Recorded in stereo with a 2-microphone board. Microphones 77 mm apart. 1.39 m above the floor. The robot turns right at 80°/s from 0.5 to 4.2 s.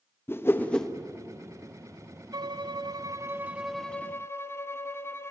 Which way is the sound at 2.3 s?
115° right.